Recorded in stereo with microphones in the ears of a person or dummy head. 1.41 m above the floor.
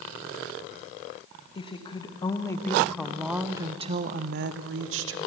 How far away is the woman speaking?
About 1.5 m.